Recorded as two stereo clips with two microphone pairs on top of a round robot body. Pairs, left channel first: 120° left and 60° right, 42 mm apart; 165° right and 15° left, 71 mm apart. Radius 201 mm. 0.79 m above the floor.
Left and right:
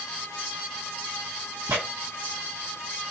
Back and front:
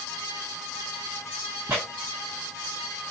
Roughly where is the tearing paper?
Ahead right.